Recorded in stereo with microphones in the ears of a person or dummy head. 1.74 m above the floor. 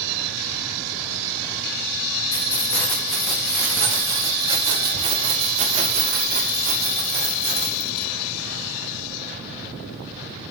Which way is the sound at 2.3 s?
25° left (ahead or behind).